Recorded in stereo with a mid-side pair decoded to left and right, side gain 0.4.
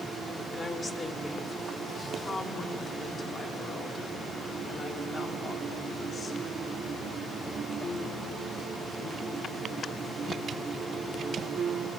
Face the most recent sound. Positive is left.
turn(degrees=50)